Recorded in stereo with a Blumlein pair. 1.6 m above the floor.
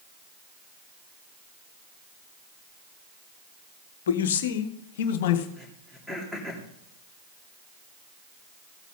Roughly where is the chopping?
No chopping in this recording.